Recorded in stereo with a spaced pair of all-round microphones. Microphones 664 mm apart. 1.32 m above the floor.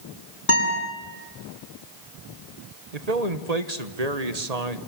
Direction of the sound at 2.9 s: 70° right (ahead or behind).